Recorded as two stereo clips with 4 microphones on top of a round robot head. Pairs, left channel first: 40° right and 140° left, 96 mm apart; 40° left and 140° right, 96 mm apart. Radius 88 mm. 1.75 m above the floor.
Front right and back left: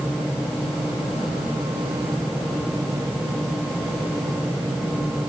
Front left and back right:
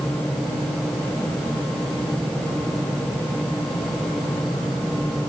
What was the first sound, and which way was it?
Only background noise.